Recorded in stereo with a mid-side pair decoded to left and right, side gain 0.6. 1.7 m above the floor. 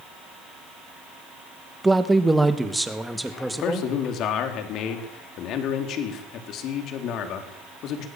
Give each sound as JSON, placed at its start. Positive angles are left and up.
{"t": 1.8, "sound": "a man speaking", "azimuth_deg": -10, "distance_m": 2.0}
{"t": 3.5, "sound": "a man speaking", "azimuth_deg": 60, "distance_m": 4.0}